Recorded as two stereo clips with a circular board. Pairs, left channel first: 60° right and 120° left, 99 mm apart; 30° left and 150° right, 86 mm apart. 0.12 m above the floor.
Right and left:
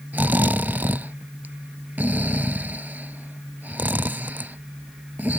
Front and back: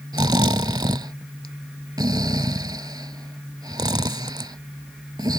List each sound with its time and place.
0.1 s snoring: 170° right